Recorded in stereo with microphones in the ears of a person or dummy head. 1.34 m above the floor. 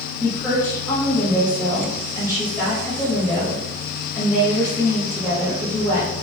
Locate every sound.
0.2 s a woman speaking: 15° left (ahead or behind), 1.3 m